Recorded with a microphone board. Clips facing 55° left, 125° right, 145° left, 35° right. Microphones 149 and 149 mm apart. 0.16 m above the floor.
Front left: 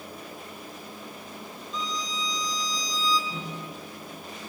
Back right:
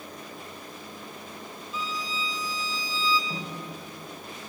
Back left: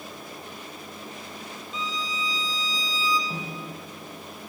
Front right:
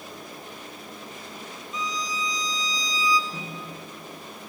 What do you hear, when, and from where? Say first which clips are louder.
1.7 s a violin: front left 1 dB, front right 2 dB; 160° left, 1.1 m
3.3 s a snare drum: even, back left 2 dB; 170° right, 6.5 m